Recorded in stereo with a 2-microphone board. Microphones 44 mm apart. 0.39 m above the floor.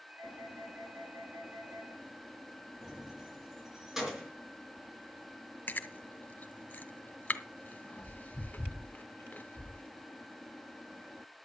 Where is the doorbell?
60° right (ahead or behind), 7 m.